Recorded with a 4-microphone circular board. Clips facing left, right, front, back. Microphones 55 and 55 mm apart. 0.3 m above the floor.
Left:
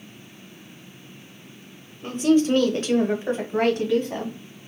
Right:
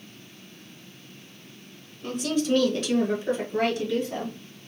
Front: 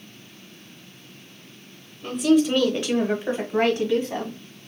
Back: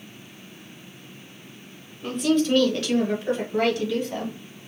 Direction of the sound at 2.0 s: 95° left.